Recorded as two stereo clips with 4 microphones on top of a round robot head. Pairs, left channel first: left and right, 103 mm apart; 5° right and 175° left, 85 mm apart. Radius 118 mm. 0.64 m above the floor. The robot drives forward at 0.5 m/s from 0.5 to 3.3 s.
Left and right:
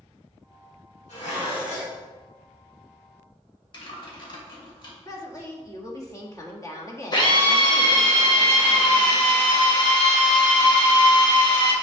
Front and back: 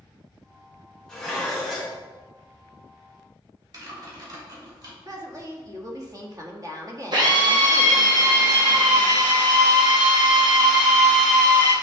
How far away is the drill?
About 2 m.